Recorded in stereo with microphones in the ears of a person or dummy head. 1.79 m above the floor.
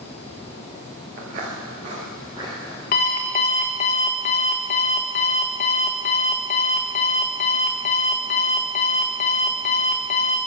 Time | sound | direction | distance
1.2 | footsteps | 40° right (ahead or behind) | 2 m
2.9 | an alarm clock | 25° left (ahead or behind) | 1.0 m